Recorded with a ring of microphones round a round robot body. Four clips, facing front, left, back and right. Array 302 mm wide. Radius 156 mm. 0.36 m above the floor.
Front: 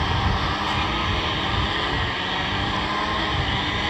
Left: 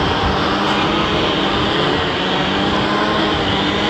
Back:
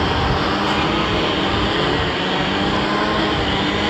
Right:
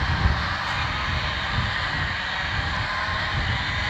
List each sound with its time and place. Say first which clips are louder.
0.0 s a lawn mower: left 11 dB, back 6 dB; 120° left